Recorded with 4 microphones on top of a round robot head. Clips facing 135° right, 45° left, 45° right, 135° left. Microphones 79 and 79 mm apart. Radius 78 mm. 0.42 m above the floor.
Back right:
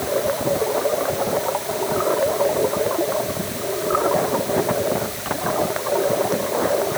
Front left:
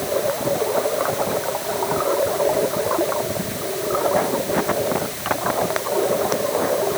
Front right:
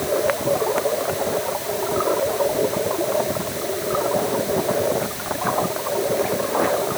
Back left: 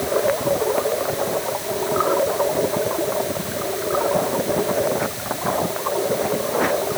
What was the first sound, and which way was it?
Only background noise.